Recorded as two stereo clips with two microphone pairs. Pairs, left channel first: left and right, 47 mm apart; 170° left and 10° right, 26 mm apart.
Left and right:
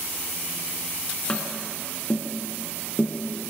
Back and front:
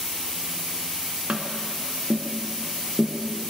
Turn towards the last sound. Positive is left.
turn(degrees=25)